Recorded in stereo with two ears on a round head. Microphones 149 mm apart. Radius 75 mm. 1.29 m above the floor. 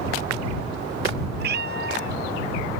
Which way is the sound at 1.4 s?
65° right (ahead or behind).